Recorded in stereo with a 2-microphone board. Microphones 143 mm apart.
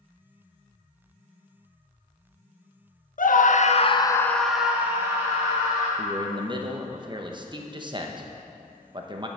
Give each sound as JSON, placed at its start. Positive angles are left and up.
{"t": 3.2, "sound": "a scream", "side_deg": 70, "distance_m": 0.7}
{"t": 6.0, "sound": "a man speaking", "side_deg": -30, "distance_m": 0.8}